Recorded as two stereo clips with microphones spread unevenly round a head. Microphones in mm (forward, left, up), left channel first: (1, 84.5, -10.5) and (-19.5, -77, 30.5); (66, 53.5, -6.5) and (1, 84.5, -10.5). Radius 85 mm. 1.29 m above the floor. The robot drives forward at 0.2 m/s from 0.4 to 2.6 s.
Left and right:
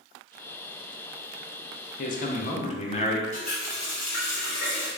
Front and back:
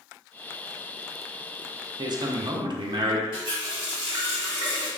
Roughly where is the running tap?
Behind.